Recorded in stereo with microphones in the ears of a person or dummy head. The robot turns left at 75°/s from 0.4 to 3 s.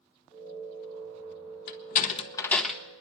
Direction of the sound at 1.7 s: 55° left (ahead or behind).